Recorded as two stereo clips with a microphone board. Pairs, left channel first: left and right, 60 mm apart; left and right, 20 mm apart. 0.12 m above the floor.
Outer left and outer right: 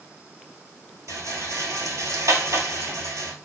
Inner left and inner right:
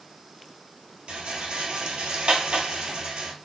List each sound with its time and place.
1.1 s a rattle: 65° right (ahead or behind), 0.9 m